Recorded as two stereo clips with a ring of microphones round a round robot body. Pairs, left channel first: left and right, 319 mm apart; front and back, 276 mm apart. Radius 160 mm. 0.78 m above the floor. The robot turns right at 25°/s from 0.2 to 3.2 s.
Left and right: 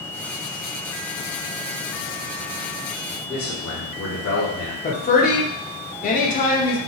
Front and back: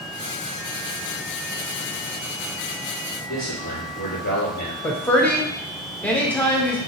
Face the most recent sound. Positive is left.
turn(degrees=80)